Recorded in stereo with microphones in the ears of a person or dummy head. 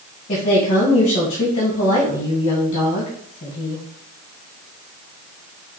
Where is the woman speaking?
35° left (ahead or behind), 1.9 m.